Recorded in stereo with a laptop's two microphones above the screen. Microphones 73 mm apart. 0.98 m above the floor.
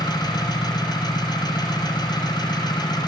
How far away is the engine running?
About 6.5 m.